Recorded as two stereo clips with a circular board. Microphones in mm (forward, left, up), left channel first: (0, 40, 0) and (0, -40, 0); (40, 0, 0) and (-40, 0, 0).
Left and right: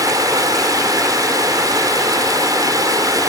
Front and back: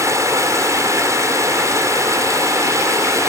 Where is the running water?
130° right.